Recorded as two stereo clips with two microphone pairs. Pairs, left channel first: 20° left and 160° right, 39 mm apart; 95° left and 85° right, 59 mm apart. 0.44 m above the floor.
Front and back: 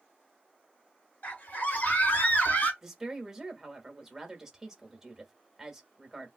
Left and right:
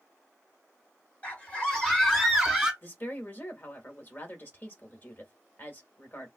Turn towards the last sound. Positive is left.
turn(degrees=130)